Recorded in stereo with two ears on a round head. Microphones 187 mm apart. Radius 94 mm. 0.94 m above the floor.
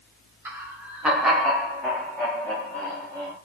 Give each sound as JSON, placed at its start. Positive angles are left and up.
{"t": 0.5, "sound": "laughter", "side_deg": -10, "distance_m": 0.9}